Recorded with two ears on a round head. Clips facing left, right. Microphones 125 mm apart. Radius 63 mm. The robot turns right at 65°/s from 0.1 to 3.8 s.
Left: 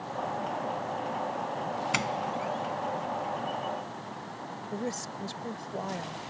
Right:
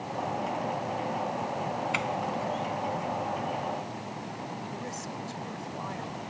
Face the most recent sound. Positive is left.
turn(degrees=40)  # may be behind; listen again after turning